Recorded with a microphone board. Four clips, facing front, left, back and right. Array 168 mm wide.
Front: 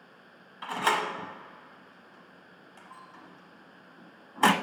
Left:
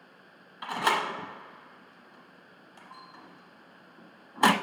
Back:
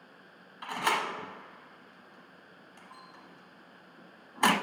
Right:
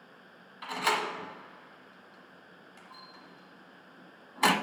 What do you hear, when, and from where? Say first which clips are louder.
0.6 s a door slam: left 3 dB, front 3 dB; 55° left, 0.7 m